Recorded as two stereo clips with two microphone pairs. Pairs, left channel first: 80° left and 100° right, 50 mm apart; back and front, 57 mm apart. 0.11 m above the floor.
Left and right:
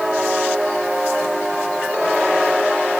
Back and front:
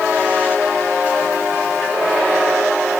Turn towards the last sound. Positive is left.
No sound to turn to.